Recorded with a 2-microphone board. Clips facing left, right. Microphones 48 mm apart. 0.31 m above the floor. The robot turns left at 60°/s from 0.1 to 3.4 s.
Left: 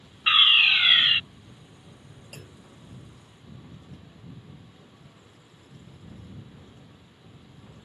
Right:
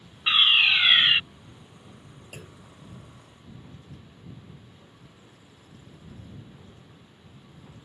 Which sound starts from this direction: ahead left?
A fire alarm, at 0.3 s.